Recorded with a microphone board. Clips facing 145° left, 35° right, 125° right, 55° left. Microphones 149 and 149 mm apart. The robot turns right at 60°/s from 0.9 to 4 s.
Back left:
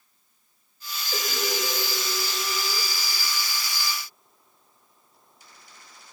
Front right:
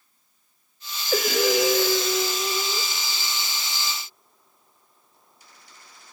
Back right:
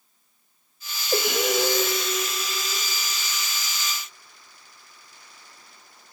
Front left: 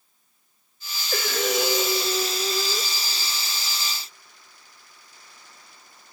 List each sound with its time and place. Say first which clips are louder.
1.1 s breathing: front right 9 dB, back right 2 dB; 60° right, 0.8 m; by 2.9 s 45° left, 0.8 m